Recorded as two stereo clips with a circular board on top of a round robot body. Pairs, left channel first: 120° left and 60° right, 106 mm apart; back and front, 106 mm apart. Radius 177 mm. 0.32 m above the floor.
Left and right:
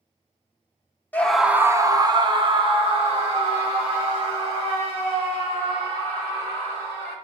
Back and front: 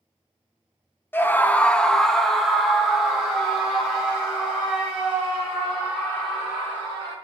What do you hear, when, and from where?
1.1 s a scream: 160° left, 1.0 m; by 7.1 s 80° right, 7.5 m